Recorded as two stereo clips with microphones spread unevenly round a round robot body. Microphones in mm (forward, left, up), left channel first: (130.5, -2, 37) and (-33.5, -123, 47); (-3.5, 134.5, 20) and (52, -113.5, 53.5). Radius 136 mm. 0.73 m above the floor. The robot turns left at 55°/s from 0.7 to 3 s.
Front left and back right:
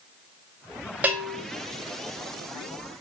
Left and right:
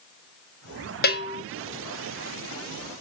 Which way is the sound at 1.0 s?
135° left.